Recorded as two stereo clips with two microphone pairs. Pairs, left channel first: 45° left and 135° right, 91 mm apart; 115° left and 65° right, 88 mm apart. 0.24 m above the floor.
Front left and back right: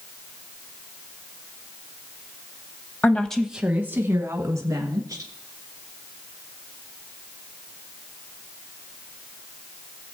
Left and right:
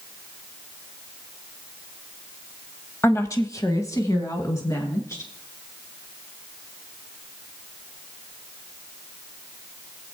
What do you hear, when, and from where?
3.0 s a woman speaking: 90° left, 1.1 m; by 5.3 s 175° left, 3.5 m